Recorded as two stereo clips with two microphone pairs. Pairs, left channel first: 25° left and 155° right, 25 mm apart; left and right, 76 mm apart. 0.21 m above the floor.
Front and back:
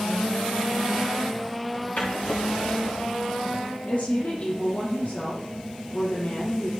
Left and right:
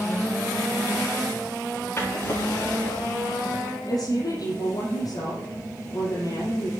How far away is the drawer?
About 9 m.